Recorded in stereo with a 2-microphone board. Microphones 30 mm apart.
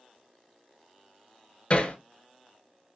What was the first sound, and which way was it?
Hammering, 40° left (ahead or behind).